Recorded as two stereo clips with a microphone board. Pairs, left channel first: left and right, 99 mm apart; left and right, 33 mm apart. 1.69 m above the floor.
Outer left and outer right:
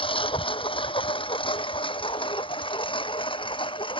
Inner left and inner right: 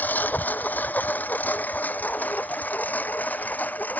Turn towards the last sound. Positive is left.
turn(degrees=55)  # may be behind; listen again after turning